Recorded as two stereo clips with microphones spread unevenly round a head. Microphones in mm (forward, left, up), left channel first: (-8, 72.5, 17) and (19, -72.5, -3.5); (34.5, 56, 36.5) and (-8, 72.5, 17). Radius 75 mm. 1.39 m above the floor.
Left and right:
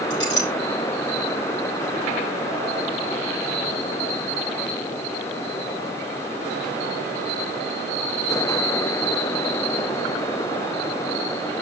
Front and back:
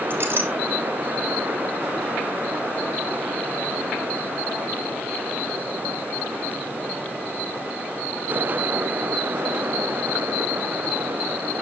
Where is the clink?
110° left, 3 m.